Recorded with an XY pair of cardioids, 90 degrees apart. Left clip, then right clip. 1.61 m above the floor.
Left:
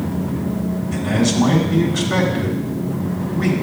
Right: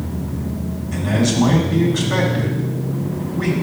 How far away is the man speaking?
About 3.5 m.